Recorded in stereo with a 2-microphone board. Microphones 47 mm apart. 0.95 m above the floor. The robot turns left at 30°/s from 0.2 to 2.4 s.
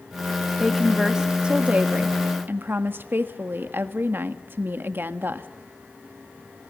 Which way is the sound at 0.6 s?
5° left.